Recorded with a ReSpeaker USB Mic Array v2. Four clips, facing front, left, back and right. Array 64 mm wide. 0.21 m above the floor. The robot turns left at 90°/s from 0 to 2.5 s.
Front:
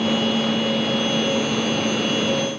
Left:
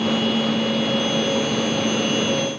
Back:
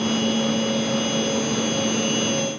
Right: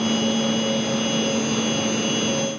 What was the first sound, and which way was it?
Only background noise.